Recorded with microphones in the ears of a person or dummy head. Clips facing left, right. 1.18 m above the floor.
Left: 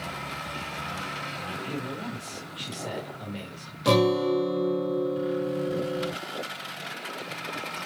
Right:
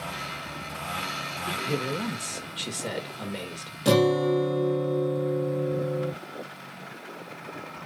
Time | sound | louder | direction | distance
1.5 | a man speaking | right 5 dB | 60° right (ahead or behind) | 0.9 m
3.9 | a guitar | right 1 dB | 5° right (ahead or behind) | 1.2 m